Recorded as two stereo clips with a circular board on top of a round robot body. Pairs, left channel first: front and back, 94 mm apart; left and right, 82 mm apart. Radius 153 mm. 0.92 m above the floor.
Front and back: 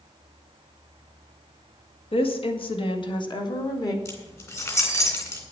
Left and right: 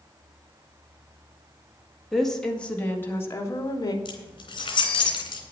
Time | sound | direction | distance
2.1 | a woman speaking | straight ahead | 2 m
4.0 | keys jangling | 60° left | 3.5 m